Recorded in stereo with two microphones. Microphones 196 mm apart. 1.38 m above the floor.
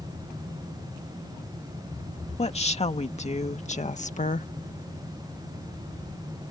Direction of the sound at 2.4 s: 35° left (ahead or behind).